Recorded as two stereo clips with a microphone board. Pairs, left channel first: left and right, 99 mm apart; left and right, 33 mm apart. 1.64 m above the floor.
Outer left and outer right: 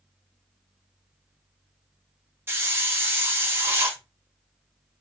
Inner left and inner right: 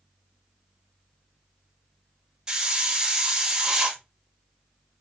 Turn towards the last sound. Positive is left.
turn(degrees=-25)  # may be behind; listen again after turning